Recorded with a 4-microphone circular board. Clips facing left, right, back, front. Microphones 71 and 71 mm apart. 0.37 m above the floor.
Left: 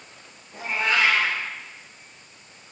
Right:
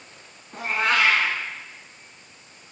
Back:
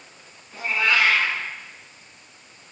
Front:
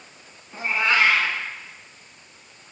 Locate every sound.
0.5 s a cat meowing: 65° right, 1.2 m